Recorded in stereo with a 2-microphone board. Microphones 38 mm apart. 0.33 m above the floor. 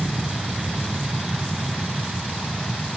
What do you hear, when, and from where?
0.0 s an aircraft: 30° right (ahead or behind)